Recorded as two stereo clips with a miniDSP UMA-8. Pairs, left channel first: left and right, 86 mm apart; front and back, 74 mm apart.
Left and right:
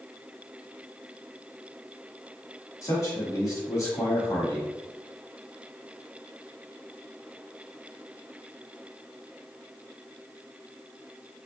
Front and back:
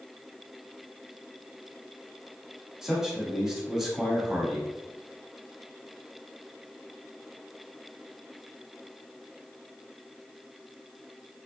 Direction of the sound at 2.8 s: 95° left.